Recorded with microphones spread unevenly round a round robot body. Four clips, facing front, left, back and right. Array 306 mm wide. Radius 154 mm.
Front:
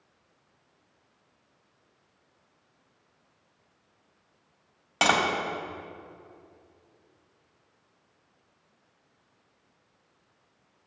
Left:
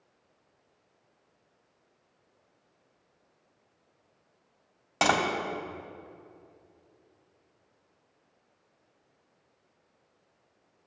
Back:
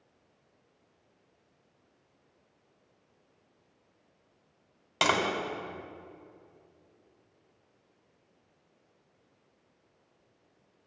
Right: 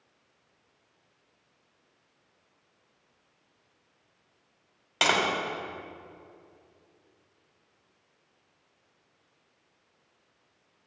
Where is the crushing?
I don't hear crushing.